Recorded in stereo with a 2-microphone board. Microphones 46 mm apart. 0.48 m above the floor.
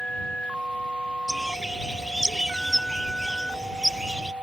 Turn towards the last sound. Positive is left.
turn(degrees=-10)  # may be behind; listen again after turning